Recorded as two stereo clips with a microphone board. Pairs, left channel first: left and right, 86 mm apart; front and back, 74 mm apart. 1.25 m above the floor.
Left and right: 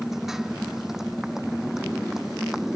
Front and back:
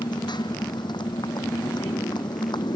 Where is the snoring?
I don't hear snoring.